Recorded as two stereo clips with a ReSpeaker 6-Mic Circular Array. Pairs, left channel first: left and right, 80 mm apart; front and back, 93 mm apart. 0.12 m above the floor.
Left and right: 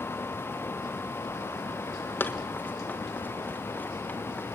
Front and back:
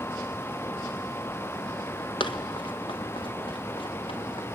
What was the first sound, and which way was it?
Running footsteps, 30° left.